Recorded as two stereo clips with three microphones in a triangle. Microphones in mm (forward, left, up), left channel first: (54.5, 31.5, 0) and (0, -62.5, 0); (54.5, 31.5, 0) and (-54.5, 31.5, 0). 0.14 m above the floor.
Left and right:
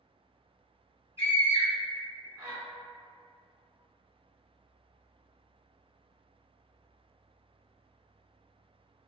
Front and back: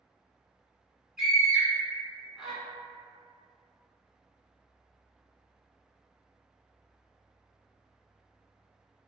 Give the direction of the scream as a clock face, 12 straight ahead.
3 o'clock.